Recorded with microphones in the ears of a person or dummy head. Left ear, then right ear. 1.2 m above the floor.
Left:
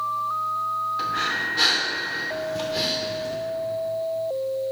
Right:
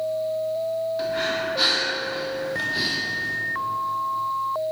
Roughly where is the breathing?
Centre.